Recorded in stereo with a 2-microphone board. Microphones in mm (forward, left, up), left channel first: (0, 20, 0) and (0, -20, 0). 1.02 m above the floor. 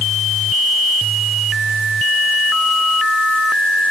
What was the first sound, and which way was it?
Only background noise.